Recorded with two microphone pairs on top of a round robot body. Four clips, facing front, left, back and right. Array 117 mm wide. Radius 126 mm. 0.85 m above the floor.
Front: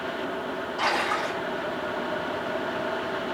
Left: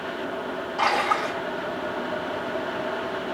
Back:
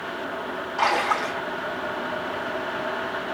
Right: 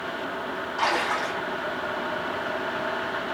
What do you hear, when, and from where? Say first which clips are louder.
0.8 s a splash: left 3 dB, back 4 dB; 170° left, 3.5 m